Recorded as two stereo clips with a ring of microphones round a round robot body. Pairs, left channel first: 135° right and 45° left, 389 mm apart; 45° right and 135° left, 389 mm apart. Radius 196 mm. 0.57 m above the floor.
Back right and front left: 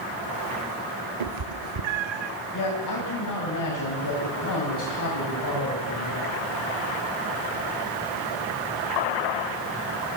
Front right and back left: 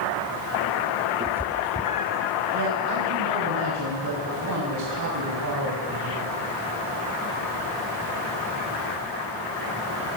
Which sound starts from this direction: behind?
A man speaking, at 2.5 s.